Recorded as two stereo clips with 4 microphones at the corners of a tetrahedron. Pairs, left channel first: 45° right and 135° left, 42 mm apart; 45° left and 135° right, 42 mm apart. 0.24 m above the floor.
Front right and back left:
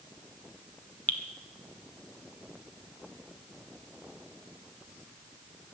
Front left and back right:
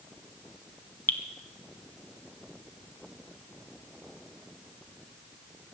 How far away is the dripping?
About 1.3 m.